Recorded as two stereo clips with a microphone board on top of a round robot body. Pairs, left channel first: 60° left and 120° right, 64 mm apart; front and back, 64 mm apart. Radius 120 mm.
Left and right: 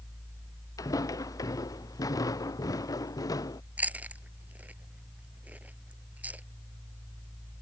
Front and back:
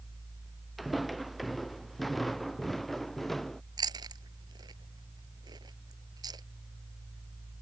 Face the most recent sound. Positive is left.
turn(degrees=175)